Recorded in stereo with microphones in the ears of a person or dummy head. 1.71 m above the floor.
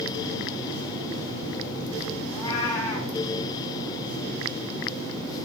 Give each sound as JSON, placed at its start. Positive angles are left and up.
{"t": 2.3, "sound": "a cat meowing", "side_deg": 15, "distance_m": 2.5}